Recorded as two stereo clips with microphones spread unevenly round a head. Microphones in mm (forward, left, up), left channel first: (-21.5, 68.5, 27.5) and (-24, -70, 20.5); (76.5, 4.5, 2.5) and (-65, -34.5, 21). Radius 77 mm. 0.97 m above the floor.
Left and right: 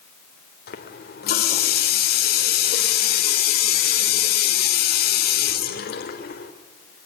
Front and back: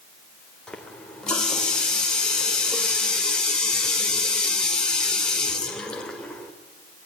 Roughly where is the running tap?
Left.